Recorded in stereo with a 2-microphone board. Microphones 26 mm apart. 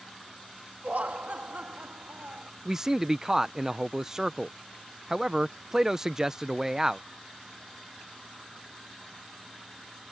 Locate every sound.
0.8 s laughter: 70° right (ahead or behind)
2.6 s a man speaking: 20° right (ahead or behind)